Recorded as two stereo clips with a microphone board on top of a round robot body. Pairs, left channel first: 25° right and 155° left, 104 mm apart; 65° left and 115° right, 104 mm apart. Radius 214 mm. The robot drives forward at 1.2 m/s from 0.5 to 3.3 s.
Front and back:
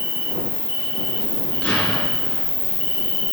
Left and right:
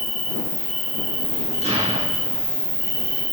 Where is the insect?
20° right, 5 m; by 3.3 s 55° right, 2 m.